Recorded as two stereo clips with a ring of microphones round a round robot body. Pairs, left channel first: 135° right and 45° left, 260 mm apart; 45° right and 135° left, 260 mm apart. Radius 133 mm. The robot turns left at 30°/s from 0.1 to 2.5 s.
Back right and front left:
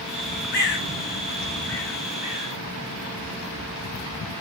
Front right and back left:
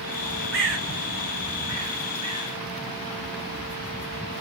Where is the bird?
Straight behind, 3 m; by 2.5 s 120° left, 3 m.